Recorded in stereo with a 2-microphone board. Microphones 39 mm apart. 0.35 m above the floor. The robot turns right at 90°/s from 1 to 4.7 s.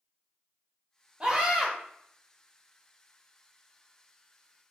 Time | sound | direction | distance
1.2 | a scream | 25° right (ahead or behind) | 1.2 m